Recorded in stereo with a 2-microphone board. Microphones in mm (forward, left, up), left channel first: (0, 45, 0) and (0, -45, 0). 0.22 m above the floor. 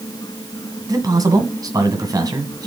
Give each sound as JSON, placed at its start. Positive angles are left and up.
{"t": 0.9, "sound": "a man speaking", "side_deg": -45, "distance_m": 1.8}